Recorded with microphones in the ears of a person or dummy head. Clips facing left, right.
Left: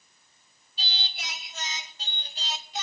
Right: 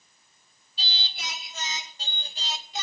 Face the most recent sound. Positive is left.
turn(degrees=-65)  # may be behind; listen again after turning